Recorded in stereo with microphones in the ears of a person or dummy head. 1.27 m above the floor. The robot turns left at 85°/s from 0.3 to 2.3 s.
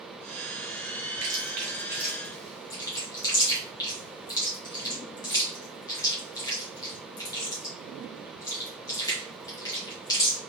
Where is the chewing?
80° right, 1.3 m; by 10.4 s 15° left (ahead or behind), 1.3 m.